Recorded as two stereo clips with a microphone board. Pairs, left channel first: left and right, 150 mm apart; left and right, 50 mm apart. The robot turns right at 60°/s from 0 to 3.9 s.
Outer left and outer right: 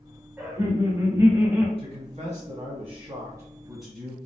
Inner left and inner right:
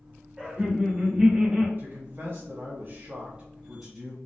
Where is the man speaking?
125° right, 1.6 m; by 4.2 s straight ahead, 1.6 m.